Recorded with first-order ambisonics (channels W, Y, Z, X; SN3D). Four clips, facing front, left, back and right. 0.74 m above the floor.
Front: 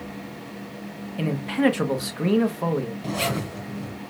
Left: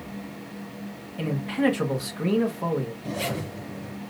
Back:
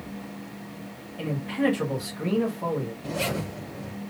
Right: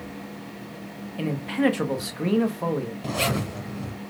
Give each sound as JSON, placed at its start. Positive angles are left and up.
{"t": 1.2, "sound": "a man speaking", "azimuth_deg": -20, "distance_m": 1.1}
{"t": 3.0, "sound": "a zipper", "azimuth_deg": -60, "distance_m": 3.0}